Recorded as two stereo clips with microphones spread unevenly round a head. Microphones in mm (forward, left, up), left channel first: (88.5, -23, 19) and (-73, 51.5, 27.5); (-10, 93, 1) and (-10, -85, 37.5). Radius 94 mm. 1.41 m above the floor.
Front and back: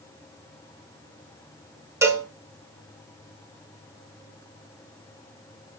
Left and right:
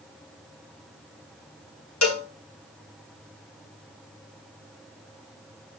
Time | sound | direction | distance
2.0 | a cowbell | 80° left | 3.5 m